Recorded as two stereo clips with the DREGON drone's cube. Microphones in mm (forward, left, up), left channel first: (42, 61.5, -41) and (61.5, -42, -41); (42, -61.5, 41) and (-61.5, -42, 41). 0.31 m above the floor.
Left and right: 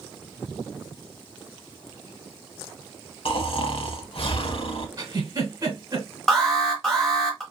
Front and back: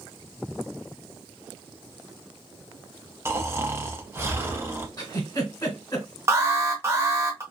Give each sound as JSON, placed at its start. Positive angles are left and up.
{"t": 3.2, "sound": "snoring", "azimuth_deg": 110, "distance_m": 0.6}
{"t": 5.0, "sound": "a giggle", "azimuth_deg": -45, "distance_m": 1.2}
{"t": 6.3, "sound": "an alarm", "azimuth_deg": -175, "distance_m": 0.8}